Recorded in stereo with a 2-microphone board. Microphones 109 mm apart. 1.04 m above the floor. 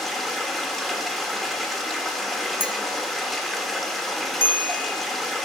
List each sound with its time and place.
0.0 s running water: centre (ahead or behind), 1.4 m
2.6 s a clink: 50° left (ahead or behind), 0.6 m
4.4 s a bell: 20° left (ahead or behind), 0.8 m